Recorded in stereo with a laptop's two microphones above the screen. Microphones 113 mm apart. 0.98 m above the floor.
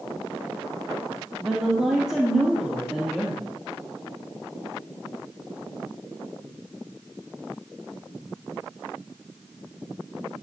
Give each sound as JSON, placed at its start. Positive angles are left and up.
{"t": 1.4, "sound": "a woman speaking", "side_deg": -5, "distance_m": 1.6}